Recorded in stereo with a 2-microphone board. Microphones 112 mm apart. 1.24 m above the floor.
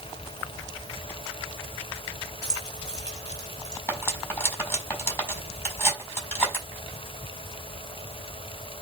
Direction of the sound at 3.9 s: 20° left (ahead or behind).